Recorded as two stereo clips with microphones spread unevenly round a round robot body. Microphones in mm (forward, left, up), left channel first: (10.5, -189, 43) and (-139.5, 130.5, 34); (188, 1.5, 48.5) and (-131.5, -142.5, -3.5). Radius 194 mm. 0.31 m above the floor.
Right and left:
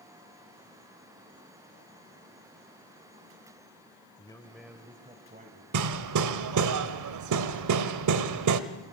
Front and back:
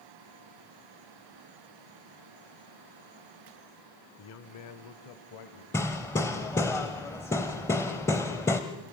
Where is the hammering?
115° left, 1.0 m.